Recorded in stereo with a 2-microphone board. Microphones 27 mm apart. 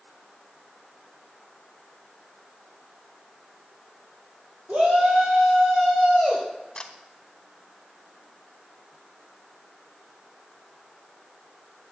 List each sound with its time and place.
4.7 s a shout: 80° right, 6 m; by 6.4 s 75° right (ahead or behind), 7 m
6.8 s a camera shutter: 25° left (ahead or behind), 1.9 m